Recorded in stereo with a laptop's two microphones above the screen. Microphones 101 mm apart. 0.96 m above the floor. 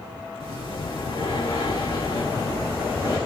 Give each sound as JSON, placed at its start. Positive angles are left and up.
{"t": 0.4, "sound": "breathing", "side_deg": 55, "distance_m": 2.5}